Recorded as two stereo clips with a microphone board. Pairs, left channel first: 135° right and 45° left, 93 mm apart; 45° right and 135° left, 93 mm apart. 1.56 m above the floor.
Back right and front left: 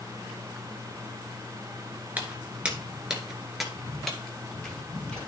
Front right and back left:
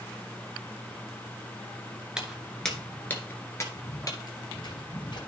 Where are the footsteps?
70° left, 1.5 m; by 5.3 s 55° right, 2.5 m.